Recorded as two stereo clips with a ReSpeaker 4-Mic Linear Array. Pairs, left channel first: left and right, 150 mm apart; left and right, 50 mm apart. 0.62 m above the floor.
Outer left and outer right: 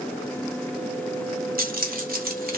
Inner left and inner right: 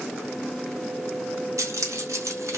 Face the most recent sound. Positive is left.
turn(degrees=-80)